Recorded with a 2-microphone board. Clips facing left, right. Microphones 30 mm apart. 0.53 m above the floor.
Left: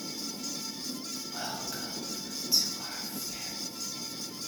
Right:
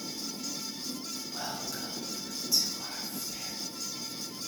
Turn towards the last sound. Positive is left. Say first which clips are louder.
# left 1 dB
turn(degrees=25)  # may be behind; listen again after turning